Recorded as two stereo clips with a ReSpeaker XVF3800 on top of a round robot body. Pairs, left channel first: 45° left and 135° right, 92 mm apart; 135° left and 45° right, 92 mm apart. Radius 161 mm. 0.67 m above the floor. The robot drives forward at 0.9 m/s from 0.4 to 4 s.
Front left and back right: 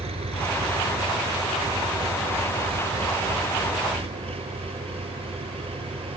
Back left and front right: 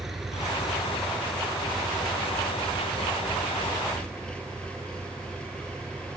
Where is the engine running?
135° right; by 6.2 s 145° right.